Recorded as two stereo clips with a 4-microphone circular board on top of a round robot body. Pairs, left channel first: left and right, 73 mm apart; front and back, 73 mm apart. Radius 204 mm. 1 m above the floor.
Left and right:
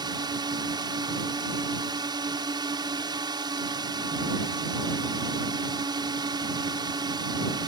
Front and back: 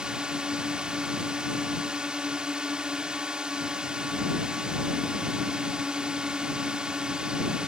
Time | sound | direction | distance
0.0 | a drone | 100° right | ?